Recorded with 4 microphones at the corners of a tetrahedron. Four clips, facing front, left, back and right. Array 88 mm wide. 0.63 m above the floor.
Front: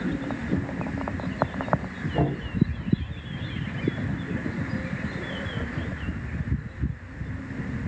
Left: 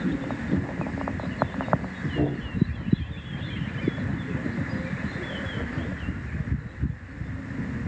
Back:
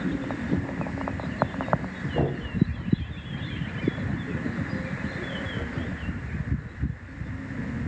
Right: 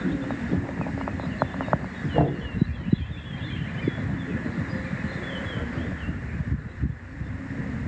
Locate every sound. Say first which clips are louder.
2.1 s knocking: right 3 dB, front 1 dB; 85° right, 4 m